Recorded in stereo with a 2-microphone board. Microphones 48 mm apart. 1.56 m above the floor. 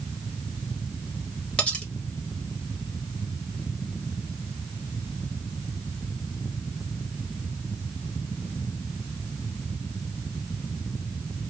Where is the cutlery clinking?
25° left (ahead or behind), 2 m.